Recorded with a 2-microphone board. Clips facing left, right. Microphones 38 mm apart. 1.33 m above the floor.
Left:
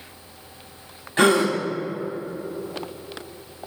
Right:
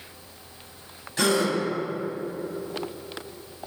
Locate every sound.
1.2 s a gasp: 35° left (ahead or behind), 0.6 m